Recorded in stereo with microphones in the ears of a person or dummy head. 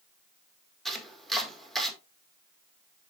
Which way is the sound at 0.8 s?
Centre (ahead or behind).